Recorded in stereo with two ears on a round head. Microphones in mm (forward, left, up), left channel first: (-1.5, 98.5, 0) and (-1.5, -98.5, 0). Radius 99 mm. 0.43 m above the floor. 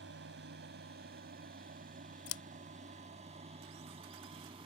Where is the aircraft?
50° right (ahead or behind); by 4.7 s 25° right (ahead or behind).